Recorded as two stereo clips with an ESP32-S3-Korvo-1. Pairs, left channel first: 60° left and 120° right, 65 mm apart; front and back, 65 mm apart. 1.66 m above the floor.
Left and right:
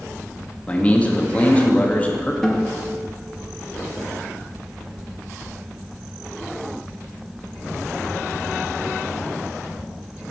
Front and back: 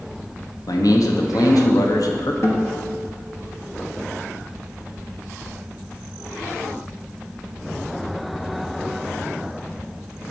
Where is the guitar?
20° right, 1.3 m.